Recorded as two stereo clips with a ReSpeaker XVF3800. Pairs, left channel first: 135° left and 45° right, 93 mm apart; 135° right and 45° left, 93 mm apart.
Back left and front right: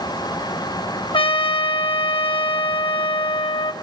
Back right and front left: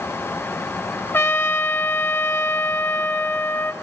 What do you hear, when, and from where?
1.1 s a trumpet: 160° left, 1.3 m